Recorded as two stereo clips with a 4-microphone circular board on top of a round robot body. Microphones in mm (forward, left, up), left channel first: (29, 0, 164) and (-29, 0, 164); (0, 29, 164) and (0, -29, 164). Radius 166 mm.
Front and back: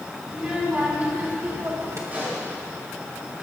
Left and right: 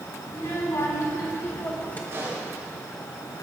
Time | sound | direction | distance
0.3 | a child speaking | 105° left | 3.5 m
2.1 | a pop | 125° right | 6 m